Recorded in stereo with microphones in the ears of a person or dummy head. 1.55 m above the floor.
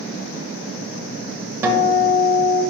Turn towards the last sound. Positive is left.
turn(degrees=-15)  # may be behind; listen again after turning